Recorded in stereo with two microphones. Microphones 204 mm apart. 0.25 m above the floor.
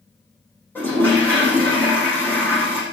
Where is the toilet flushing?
10° left (ahead or behind), 8.5 m.